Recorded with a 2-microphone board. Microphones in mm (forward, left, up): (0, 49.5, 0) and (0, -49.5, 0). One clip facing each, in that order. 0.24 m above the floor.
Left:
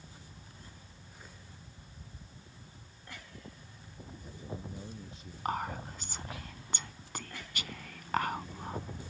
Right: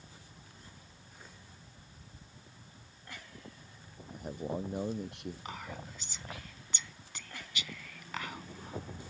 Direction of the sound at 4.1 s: 80° right.